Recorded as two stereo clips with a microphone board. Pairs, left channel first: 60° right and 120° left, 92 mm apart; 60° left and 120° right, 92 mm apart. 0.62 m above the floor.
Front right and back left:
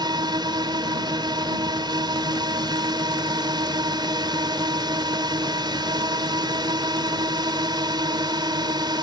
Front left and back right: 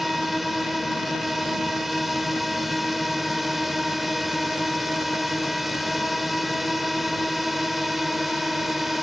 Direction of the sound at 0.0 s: 150° left.